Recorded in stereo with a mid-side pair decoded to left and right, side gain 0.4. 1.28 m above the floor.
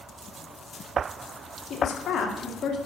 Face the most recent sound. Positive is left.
turn(degrees=60)